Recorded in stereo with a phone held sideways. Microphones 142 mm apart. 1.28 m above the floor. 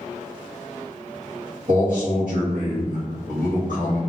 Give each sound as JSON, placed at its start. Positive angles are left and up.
{"t": 1.7, "sound": "a man speaking", "side_deg": -70, "distance_m": 1.0}